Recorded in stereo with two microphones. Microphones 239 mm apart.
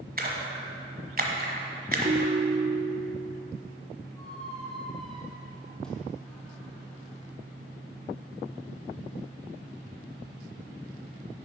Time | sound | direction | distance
0.2 | a splash | 40° right (ahead or behind) | 1.3 m
2.0 | a ringtone | 25° right (ahead or behind) | 0.6 m
4.2 | a squeak | 5° left (ahead or behind) | 1.8 m